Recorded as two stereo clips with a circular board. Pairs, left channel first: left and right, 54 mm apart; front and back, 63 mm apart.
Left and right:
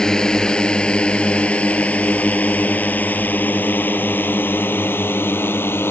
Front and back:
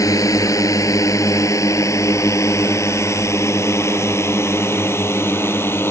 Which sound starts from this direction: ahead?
A drone, at 0.0 s.